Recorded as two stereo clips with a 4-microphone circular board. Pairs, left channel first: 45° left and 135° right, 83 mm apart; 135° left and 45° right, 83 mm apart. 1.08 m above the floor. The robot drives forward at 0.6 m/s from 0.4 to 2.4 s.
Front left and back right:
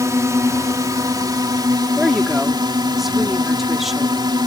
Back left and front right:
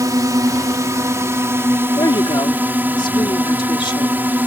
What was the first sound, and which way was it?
A drone, 85° right.